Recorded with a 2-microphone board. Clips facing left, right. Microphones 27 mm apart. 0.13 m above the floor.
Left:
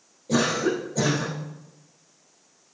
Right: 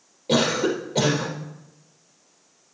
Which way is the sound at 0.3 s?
65° right (ahead or behind).